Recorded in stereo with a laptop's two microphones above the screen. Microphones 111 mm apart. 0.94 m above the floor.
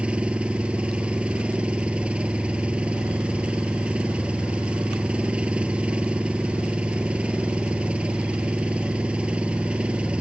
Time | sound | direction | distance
0.0 | an engine running | 10° right (ahead or behind) | ?